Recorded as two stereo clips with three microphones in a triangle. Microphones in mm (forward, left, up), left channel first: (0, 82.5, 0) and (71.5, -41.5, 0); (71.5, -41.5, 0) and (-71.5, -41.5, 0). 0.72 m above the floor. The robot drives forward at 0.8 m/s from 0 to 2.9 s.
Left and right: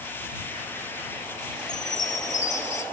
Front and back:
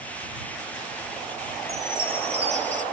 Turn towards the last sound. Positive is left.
turn(degrees=155)